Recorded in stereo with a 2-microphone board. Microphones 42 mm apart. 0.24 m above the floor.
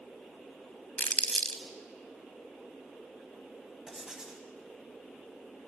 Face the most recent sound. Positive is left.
turn(degrees=-20)  # may be behind; listen again after turning